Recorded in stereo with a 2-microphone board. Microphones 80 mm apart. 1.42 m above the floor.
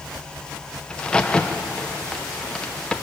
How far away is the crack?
About 1.3 m.